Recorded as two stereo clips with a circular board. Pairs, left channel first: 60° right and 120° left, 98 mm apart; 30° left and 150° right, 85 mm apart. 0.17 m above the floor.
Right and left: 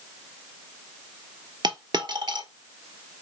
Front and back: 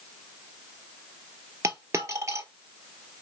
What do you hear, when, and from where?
1.6 s a dropped coin: 155° left, 1.0 m